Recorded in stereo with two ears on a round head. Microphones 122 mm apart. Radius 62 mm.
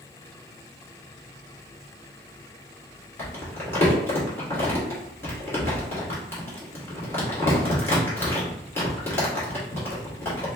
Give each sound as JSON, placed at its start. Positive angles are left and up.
{"t": 3.2, "sound": "crumpling", "side_deg": 20, "distance_m": 2.0}